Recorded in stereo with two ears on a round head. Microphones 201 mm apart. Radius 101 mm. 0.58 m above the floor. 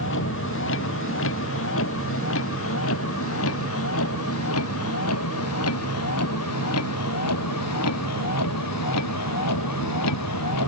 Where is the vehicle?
60° left (ahead or behind); by 10.7 s 90° left.